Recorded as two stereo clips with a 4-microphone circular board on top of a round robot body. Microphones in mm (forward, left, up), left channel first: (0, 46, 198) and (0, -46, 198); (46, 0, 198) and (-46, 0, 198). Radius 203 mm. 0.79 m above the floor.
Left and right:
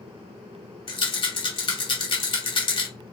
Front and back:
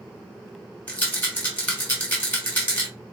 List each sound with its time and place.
0.9 s a rattle: 75° left, 2.5 m